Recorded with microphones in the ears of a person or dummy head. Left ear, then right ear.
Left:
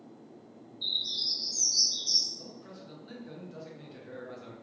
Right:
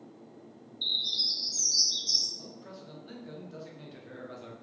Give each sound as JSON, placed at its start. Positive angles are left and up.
{"t": 0.8, "sound": "a bird", "side_deg": -15, "distance_m": 0.5}
{"t": 2.4, "sound": "a man speaking", "side_deg": -5, "distance_m": 0.8}